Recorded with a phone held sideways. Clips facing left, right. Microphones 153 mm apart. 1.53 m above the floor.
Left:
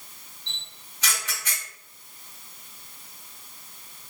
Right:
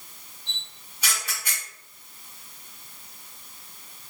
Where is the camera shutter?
10° right (ahead or behind), 1.7 m.